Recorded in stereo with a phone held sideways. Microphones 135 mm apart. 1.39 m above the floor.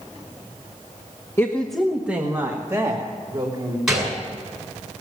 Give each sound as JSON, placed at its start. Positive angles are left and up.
{"t": 1.4, "sound": "a woman speaking", "side_deg": 20, "distance_m": 0.9}
{"t": 3.9, "sound": "a gunshot", "side_deg": -5, "distance_m": 7.5}